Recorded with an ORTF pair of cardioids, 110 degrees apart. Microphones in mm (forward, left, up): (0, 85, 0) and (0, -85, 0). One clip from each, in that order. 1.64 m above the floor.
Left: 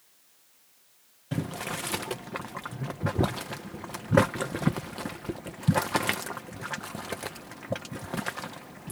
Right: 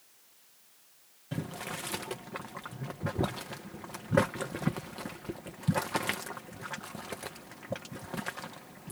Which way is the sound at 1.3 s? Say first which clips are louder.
Left 5 dB; 30° left.